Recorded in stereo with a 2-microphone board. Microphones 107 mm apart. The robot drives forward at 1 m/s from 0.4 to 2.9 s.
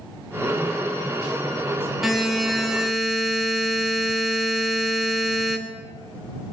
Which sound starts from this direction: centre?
A buzzer, at 2.0 s.